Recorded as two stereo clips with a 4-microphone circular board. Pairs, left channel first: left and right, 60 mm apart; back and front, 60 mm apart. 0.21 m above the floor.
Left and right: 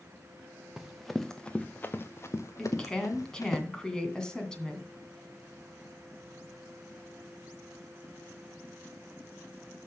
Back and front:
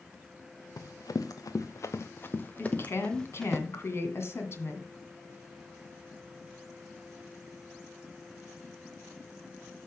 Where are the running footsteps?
175° right, 1.6 m; by 3.6 s 95° left, 2 m.